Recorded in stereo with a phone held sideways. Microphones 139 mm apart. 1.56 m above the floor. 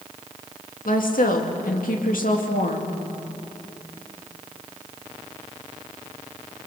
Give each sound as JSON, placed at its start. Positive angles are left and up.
{"t": 0.8, "sound": "a woman speaking", "side_deg": 85, "distance_m": 2.5}